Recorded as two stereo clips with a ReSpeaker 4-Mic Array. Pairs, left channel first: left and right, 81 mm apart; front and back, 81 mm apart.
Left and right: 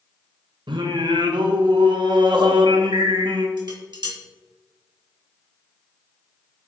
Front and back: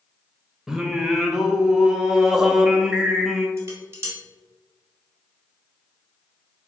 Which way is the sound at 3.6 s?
120° right.